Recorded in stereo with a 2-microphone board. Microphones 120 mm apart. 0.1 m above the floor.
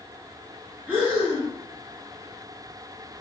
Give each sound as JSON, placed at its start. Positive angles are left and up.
{"t": 0.9, "sound": "breathing", "side_deg": -10, "distance_m": 1.8}